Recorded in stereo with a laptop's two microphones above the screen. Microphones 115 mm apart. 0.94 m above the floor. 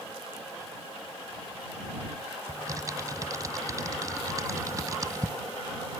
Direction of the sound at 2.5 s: 35° right (ahead or behind).